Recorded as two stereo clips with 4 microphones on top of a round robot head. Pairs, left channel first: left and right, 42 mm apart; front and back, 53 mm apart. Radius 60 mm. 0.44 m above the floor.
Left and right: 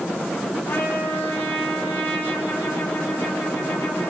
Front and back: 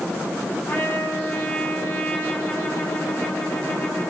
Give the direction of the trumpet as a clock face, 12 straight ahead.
10 o'clock.